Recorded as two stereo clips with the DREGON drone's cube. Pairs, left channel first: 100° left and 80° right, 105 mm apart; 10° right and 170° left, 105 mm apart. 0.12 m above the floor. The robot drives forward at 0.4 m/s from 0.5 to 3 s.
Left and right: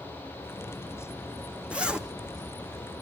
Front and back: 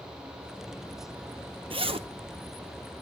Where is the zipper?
155° right, 0.6 m; by 2.1 s 160° right, 0.7 m.